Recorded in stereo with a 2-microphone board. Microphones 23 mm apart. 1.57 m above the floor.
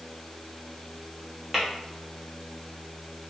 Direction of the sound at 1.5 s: 5° right (ahead or behind).